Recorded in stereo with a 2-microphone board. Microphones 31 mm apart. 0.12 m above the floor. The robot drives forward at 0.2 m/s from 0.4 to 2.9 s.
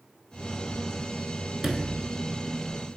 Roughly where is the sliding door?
Centre.